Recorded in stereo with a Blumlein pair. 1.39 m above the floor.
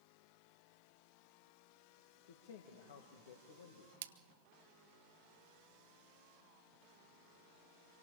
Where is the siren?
I don't hear a siren.